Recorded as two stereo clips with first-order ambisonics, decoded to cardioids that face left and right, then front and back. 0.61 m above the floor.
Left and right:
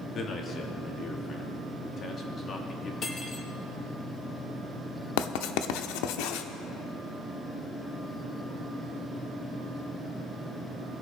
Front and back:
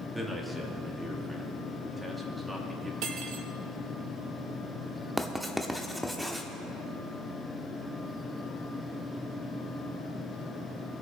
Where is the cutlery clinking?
150° left, 1.0 m.